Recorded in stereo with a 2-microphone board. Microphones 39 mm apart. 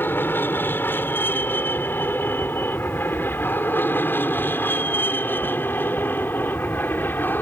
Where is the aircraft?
70° left (ahead or behind); by 7.4 s 65° left (ahead or behind).